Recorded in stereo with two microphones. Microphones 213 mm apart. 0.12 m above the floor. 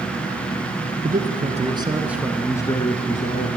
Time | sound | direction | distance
1.0 | a man speaking | 45° right (ahead or behind) | 1.4 m